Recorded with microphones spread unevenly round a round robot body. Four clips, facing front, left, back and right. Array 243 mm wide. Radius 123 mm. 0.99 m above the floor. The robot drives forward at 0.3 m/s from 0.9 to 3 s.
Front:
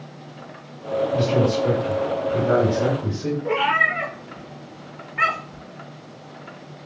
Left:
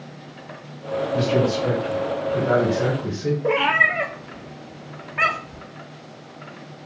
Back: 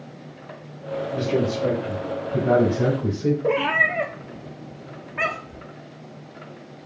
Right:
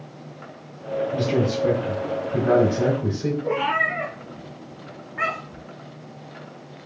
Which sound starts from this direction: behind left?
A cat meowing, at 3.4 s.